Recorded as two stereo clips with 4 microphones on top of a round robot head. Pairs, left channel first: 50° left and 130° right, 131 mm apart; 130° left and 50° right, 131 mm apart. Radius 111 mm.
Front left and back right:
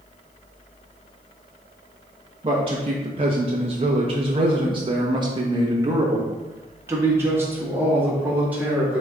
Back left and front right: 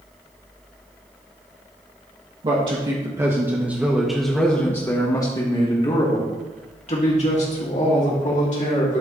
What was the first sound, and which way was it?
A man speaking, 90° right.